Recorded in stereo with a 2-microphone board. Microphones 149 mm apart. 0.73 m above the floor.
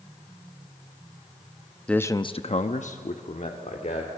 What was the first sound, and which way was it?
A man speaking, 5° left (ahead or behind).